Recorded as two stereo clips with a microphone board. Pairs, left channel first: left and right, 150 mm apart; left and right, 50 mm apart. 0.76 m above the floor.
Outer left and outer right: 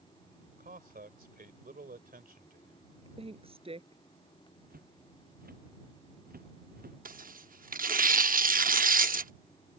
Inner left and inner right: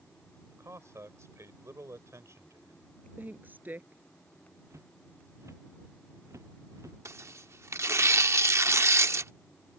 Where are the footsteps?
85° right.